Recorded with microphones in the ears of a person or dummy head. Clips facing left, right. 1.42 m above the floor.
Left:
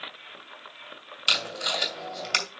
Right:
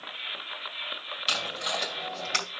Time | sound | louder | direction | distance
1.3 | tape being pulled | left 1 dB | 30° left (ahead or behind) | 2.5 m